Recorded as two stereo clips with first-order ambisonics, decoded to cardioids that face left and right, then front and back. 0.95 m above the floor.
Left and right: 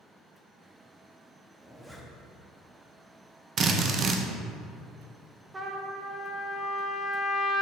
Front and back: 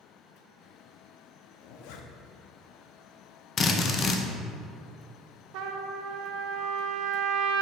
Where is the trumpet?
170° right, 0.6 m.